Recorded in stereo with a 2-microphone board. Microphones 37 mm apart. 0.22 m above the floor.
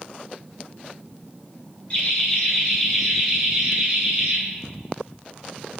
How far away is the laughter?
About 1.9 m.